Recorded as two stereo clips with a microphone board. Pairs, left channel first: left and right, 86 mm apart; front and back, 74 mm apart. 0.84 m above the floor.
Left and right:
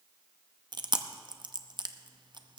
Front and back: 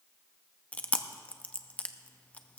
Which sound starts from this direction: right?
Chewing, at 0.7 s.